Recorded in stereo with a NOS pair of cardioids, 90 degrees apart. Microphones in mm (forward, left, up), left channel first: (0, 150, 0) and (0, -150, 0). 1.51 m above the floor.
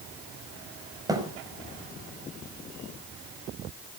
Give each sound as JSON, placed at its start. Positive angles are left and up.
{"t": 1.1, "sound": "a thud", "azimuth_deg": -10, "distance_m": 4.5}